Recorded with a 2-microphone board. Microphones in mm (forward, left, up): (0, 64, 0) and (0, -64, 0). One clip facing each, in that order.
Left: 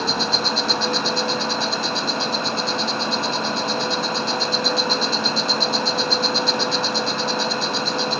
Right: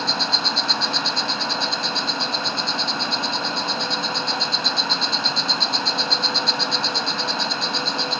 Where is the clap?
I don't hear a clap.